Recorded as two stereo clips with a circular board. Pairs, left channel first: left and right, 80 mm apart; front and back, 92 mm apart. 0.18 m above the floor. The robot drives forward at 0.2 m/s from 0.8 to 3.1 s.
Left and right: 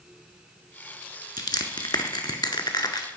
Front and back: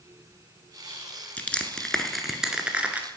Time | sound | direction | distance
1.4 | crushing | 70° left | 0.5 m